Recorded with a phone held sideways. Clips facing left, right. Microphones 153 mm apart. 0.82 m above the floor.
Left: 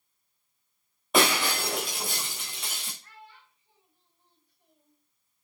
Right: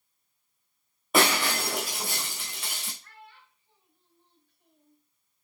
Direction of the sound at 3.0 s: 15° left (ahead or behind).